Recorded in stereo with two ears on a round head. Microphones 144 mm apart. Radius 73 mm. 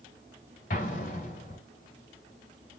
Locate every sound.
0.7 s an explosion: 60° left (ahead or behind), 1.4 m